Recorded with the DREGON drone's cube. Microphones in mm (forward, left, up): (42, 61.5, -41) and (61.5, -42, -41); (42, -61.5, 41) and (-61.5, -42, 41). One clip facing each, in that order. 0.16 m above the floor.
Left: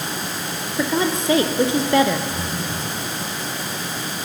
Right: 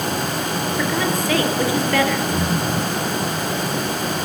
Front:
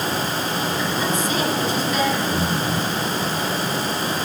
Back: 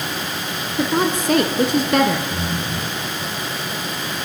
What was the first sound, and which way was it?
A woman speaking, 165° left.